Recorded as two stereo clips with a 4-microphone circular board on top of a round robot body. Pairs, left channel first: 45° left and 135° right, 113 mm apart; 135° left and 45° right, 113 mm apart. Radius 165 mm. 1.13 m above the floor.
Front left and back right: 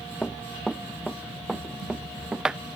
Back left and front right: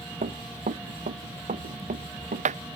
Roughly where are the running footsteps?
Ahead right.